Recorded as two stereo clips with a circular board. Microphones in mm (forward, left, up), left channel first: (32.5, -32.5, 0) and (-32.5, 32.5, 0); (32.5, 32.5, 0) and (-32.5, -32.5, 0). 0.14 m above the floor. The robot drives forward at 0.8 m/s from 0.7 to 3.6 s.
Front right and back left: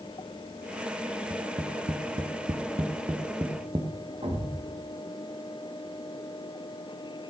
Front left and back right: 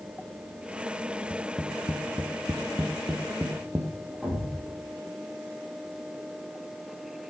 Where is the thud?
140° left, 4.5 m.